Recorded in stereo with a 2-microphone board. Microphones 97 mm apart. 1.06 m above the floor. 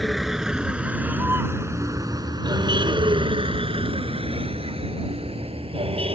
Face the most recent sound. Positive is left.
turn(degrees=-80)